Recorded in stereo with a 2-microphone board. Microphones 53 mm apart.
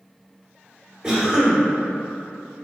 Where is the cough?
5° right (ahead or behind), 1.5 m.